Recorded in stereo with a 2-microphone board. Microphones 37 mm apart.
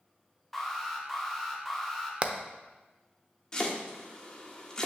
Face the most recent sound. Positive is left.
turn(degrees=20)  # may be behind; listen again after turning